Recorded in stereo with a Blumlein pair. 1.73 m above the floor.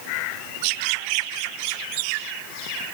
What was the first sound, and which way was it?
Only background noise.